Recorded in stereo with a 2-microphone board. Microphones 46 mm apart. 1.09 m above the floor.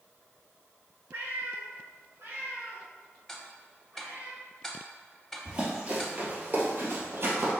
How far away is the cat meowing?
About 1.5 m.